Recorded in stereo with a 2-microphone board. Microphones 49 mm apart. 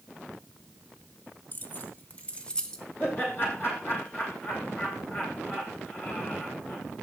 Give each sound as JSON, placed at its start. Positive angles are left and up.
{"t": 1.5, "sound": "keys jangling", "side_deg": 40, "distance_m": 1.3}
{"t": 3.0, "sound": "laughter", "side_deg": 50, "distance_m": 9.5}